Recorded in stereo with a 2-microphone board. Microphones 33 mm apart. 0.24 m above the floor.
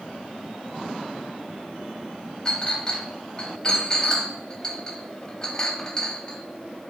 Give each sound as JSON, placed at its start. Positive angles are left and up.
{"t": 2.5, "sound": "a clink", "side_deg": 20, "distance_m": 0.7}